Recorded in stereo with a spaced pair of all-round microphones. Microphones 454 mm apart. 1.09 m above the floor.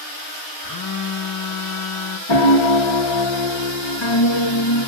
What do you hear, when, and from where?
0.6 s a phone buzzing: 50° left (ahead or behind), 0.9 m
2.3 s a piano: 75° left (ahead or behind), 0.9 m